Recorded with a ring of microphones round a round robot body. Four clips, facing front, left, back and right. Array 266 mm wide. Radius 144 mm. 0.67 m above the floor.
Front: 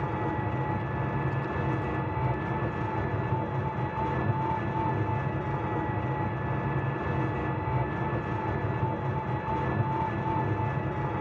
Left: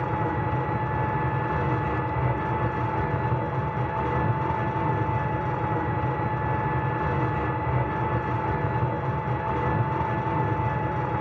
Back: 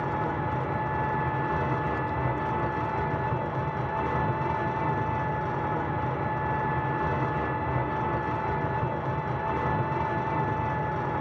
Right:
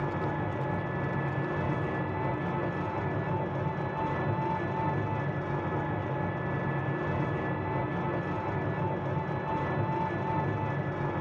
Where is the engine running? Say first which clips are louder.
Left 5 dB, back 2 dB; 120° left, 2.5 m.